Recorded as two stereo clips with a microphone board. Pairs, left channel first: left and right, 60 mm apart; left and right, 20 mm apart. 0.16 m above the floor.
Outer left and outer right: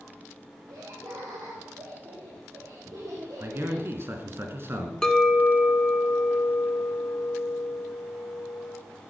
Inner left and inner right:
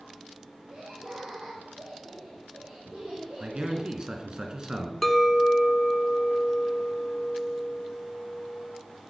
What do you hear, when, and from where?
0.7 s laughter: 75° right (ahead or behind), 4.5 m; by 3.9 s 65° right (ahead or behind), 6.5 m
3.4 s a man speaking: 40° right (ahead or behind), 2 m
5.0 s a clink: 10° left (ahead or behind), 1.2 m